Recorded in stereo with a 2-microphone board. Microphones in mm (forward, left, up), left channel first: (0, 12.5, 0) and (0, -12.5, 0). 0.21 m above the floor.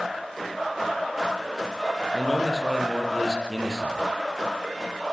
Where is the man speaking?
5° right (ahead or behind), 6 m.